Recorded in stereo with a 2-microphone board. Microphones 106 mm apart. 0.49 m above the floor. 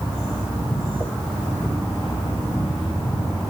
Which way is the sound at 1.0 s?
20° right (ahead or behind).